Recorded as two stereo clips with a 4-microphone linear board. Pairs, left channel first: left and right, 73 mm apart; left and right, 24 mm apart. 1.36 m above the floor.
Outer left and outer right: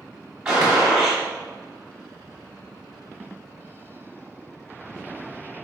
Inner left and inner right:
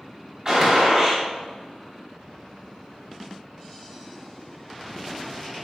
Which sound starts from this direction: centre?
A gunshot, at 0.5 s.